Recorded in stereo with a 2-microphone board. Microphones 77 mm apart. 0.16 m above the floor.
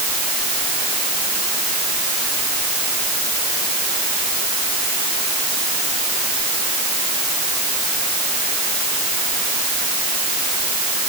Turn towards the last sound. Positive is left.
No sound to turn to.